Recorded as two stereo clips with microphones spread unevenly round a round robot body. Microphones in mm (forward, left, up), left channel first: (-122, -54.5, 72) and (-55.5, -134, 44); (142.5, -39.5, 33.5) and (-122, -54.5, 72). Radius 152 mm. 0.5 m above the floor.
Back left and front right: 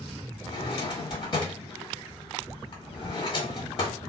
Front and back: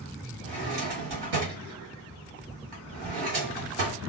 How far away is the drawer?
About 1.6 m.